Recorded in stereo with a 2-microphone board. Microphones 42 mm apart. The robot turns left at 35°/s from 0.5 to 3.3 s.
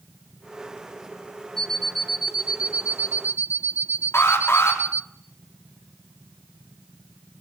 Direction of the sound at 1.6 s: 15° left.